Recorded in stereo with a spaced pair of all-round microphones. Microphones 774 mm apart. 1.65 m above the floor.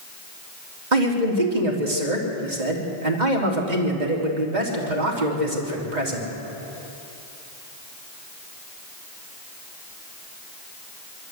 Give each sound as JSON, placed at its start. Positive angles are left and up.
{"t": 0.9, "sound": "a man speaking", "side_deg": -70, "distance_m": 3.5}